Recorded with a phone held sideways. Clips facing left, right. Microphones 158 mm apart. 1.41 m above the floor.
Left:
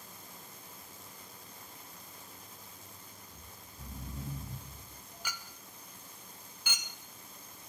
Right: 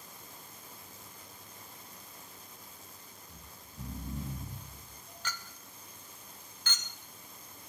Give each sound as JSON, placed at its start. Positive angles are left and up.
{"t": 3.3, "sound": "snoring", "side_deg": -75, "distance_m": 6.5}
{"t": 5.2, "sound": "a clink", "side_deg": 10, "distance_m": 0.8}